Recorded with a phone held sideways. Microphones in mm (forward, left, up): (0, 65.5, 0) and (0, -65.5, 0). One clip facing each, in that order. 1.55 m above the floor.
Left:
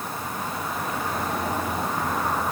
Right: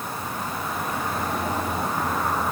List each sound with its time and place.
Only background noise.